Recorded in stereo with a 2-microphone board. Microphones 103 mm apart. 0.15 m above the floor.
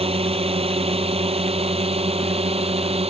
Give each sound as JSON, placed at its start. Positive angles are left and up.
{"t": 0.0, "sound": "a drone", "side_deg": -65}